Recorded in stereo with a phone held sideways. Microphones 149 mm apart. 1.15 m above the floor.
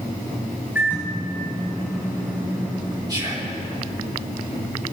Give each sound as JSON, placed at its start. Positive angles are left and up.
{"t": 0.8, "sound": "a microwave", "side_deg": -15, "distance_m": 5.0}
{"t": 3.1, "sound": "whispering", "side_deg": -30, "distance_m": 2.5}